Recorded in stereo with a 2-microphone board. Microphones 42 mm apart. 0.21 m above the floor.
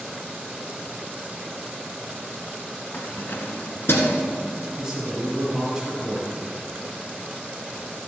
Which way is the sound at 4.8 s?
5° right (ahead or behind).